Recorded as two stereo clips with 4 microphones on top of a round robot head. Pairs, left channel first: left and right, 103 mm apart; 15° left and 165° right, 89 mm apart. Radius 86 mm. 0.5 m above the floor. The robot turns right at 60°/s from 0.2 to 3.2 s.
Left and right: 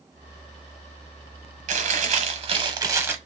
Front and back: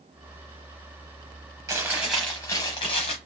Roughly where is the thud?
I don't hear a thud.